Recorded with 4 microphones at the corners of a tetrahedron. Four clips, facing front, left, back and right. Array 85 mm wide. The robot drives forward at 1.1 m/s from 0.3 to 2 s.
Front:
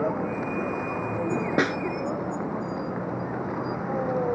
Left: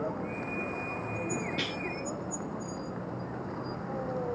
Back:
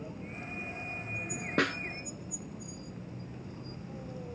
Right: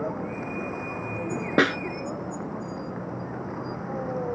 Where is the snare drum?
75° right; by 1.8 s 80° right.